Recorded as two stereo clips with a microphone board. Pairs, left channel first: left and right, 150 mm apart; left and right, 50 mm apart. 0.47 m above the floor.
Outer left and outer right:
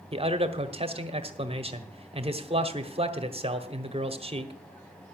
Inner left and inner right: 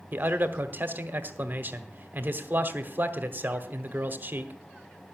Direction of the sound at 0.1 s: 40° right (ahead or behind).